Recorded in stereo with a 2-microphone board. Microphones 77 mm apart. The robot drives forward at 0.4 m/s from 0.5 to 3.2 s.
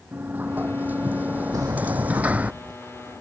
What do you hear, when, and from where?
0.1 s a sliding door: 25° right (ahead or behind); by 2.5 s 20° right (ahead or behind)
1.5 s a sliding door: 50° right (ahead or behind); by 2.7 s 55° right (ahead or behind)